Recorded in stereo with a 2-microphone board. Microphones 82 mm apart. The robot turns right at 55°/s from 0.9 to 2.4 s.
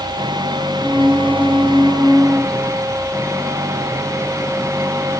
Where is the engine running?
115° right; by 5.2 s 35° right.